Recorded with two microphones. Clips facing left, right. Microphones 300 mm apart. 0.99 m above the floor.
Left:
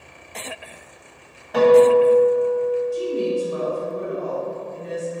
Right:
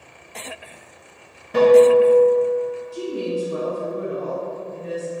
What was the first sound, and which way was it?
A guitar, 35° right (ahead or behind).